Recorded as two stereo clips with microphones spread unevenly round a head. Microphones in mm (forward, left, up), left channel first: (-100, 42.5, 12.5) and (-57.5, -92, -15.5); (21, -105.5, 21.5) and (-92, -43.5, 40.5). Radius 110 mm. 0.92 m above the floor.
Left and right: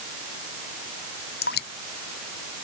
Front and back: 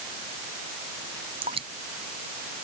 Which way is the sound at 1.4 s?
85° left.